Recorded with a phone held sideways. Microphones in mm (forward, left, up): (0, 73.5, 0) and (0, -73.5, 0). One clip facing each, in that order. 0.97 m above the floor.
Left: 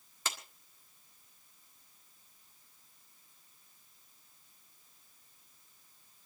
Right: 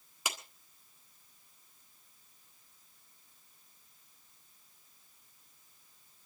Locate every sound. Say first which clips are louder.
0.2 s a clap: right 1 dB; 15° right (ahead or behind), 1.6 m